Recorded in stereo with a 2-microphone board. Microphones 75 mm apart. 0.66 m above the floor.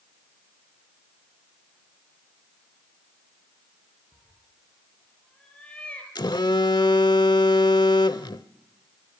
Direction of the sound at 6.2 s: 75° left (ahead or behind).